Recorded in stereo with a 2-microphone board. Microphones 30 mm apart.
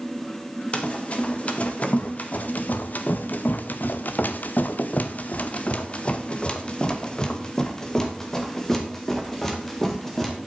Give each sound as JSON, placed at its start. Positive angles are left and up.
{"t": 0.7, "sound": "running footsteps", "side_deg": 45, "distance_m": 2.5}